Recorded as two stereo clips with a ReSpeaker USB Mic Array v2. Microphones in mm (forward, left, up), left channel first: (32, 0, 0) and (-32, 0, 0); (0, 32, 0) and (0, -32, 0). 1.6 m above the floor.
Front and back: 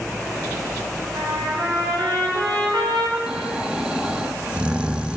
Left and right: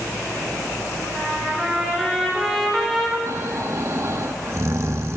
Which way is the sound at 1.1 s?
Straight behind.